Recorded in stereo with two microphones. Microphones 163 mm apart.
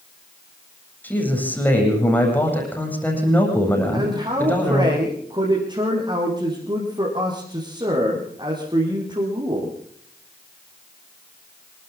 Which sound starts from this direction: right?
A man speaking, at 3.9 s.